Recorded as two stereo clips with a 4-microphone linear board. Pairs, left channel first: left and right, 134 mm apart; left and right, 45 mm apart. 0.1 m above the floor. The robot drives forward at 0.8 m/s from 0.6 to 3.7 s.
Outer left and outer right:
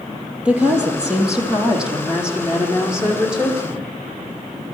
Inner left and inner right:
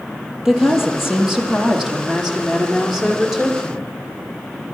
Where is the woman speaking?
10° right (ahead or behind), 3.5 m; by 4.0 s 5° right (ahead or behind), 5.5 m.